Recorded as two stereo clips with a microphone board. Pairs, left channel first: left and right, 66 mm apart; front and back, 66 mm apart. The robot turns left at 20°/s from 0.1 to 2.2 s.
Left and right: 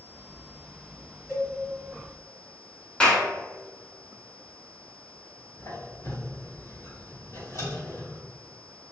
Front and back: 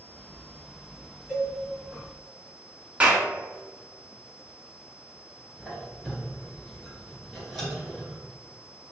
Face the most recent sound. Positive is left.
turn(degrees=95)